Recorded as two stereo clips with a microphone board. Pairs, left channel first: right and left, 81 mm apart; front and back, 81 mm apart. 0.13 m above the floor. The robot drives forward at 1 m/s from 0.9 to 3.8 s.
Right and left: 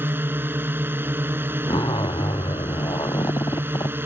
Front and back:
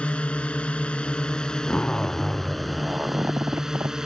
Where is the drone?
60° left; by 4.1 s 105° left.